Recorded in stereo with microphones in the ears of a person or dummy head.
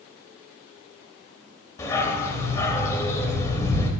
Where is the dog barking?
15° left (ahead or behind), 2 m.